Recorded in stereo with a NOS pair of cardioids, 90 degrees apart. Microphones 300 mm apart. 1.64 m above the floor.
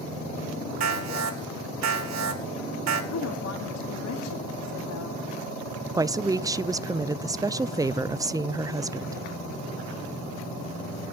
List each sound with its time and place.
0.8 s an alarm: 55° right, 5 m
3.1 s a woman speaking: 55° left, 3.5 m
6.0 s a woman speaking: 10° right, 0.6 m